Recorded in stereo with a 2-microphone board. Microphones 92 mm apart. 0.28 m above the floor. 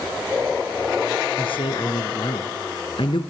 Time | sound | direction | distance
1.4 | a man speaking | 70° left (ahead or behind) | 3 m